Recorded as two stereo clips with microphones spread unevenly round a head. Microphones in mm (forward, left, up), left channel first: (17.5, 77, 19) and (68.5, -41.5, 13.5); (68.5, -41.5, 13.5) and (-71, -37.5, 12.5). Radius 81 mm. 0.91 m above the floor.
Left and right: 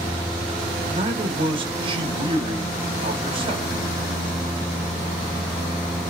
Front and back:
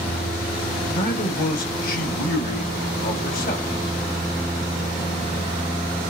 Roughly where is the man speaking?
Ahead.